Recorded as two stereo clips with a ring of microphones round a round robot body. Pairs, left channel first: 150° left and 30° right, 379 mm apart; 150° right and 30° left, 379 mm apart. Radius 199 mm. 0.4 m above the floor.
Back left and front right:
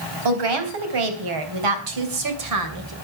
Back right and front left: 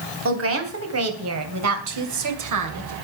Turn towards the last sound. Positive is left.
turn(degrees=5)